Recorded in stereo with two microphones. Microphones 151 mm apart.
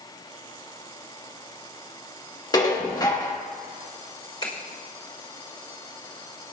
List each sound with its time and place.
2.5 s dishes clattering: 25° left (ahead or behind), 1.4 m
4.4 s a finger snap: 30° left (ahead or behind), 3.5 m